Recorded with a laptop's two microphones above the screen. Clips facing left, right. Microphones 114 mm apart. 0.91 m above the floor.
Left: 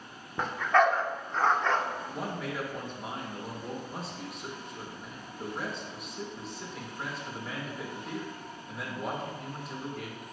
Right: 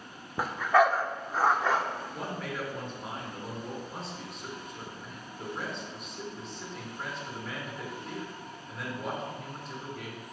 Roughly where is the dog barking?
Centre.